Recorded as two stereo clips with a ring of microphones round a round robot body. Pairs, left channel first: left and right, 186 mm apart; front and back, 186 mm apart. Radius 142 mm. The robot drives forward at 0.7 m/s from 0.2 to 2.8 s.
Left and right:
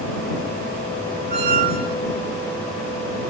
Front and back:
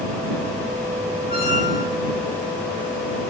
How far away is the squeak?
About 0.9 m.